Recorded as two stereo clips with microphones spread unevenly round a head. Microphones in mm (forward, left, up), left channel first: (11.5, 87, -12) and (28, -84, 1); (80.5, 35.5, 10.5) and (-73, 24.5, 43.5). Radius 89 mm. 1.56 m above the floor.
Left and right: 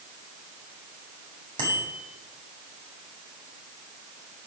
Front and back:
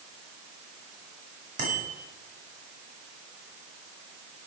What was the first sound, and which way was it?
A bicycle bell, 150° right.